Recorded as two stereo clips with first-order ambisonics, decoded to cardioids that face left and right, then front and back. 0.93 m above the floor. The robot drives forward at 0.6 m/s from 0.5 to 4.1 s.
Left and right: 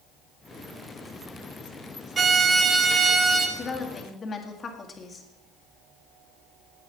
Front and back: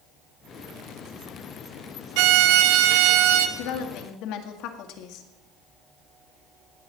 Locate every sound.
2.2 s a violin: 160° right, 0.8 m; by 3.5 s 170° right, 1.6 m
3.6 s a woman speaking: 20° left, 2 m